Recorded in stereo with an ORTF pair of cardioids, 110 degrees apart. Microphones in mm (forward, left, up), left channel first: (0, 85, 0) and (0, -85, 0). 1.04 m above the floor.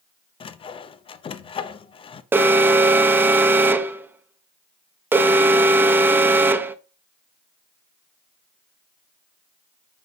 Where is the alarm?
10° right, 0.5 m.